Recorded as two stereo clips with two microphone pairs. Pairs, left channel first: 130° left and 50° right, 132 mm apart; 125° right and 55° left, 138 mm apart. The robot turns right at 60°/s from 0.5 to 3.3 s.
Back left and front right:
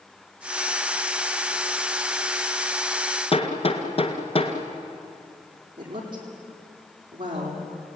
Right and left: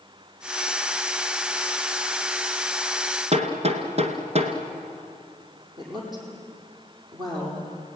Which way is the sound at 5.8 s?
Straight ahead.